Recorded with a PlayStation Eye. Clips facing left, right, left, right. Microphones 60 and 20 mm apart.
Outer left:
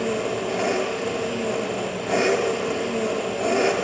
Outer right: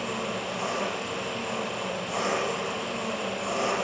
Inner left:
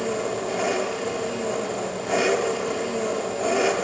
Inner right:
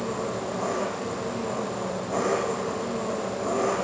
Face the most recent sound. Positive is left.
turn(degrees=65)  # may be behind; listen again after turning